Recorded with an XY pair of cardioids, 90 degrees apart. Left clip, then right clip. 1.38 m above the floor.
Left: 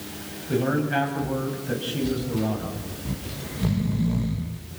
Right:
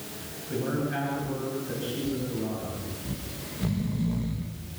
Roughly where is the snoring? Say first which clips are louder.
Left 3 dB; ahead left.